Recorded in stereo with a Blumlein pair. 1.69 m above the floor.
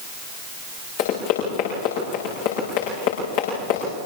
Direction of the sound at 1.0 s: 50° left.